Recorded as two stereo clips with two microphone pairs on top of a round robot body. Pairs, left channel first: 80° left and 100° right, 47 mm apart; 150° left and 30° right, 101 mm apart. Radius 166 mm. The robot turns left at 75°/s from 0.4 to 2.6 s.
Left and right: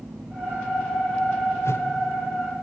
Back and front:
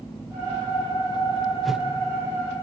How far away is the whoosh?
About 1.3 m.